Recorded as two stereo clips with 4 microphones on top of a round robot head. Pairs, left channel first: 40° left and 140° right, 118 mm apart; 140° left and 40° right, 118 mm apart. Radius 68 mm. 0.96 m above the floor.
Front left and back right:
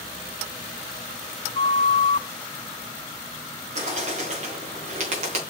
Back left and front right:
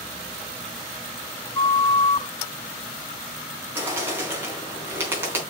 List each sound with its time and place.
1.6 s a flute: 80° left, 0.7 m
3.8 s a bird: 110° right, 4 m